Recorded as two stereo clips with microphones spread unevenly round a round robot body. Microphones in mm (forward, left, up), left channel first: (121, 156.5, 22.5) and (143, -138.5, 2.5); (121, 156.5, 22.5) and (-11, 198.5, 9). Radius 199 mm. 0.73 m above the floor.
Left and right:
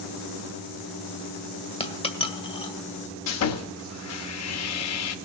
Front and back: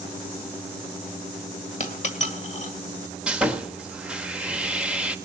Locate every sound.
1.8 s a dropped coin: 20° left, 1.9 m
3.3 s sawing: 85° left, 1.3 m